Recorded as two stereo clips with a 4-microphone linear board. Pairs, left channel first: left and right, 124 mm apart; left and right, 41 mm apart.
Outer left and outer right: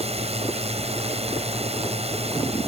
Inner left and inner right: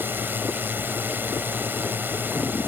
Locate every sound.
0.0 s a drone: 60° right (ahead or behind)